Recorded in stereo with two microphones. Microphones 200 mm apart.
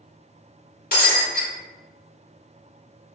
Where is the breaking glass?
50° left (ahead or behind), 1.2 m.